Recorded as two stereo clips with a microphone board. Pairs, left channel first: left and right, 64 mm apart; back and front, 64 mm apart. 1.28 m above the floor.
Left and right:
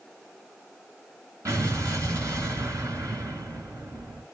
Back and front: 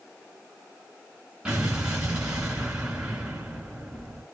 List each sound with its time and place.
1.4 s an explosion: 75° right, 2 m